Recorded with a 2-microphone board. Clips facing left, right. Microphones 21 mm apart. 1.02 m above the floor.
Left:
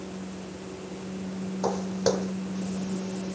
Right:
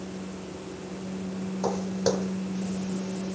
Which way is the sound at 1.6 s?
5° left (ahead or behind).